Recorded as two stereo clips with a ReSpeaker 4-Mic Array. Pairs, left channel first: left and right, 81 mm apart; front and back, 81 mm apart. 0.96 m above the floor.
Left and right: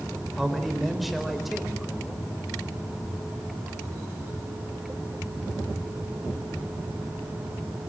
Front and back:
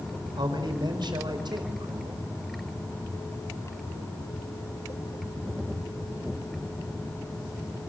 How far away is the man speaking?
About 4.5 m.